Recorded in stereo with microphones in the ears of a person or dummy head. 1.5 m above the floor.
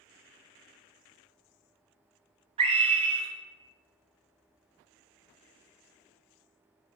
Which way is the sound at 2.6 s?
25° right (ahead or behind).